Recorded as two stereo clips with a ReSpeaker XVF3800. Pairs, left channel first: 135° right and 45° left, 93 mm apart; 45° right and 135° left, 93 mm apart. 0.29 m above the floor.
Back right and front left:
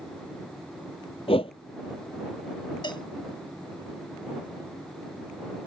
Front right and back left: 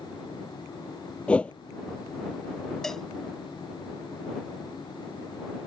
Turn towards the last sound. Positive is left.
turn(degrees=-130)